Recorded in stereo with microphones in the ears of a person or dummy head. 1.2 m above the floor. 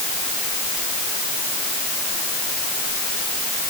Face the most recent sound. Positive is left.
No sound to turn to.